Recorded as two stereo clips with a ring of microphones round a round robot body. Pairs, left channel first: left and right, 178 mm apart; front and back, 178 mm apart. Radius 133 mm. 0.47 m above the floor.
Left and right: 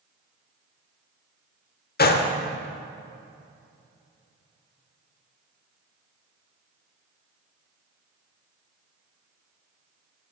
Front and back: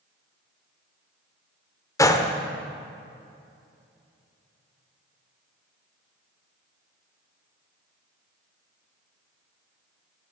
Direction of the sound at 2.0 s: 70° left.